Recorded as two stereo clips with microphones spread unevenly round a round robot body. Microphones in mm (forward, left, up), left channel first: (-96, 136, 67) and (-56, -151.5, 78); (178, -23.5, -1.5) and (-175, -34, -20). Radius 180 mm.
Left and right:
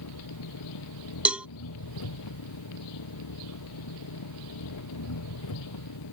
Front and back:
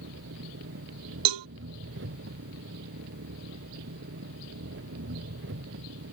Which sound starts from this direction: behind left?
An engine running, at 0.0 s.